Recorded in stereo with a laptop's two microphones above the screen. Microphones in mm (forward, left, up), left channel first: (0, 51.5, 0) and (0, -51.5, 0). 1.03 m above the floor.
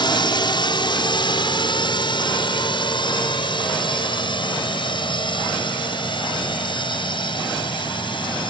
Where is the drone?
50° left (ahead or behind).